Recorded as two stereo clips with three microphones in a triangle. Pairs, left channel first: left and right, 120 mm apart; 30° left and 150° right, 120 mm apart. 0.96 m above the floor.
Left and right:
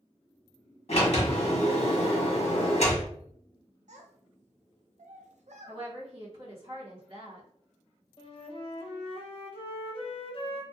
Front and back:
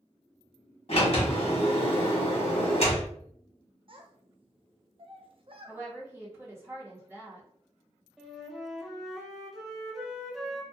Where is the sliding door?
60° left, 0.9 m.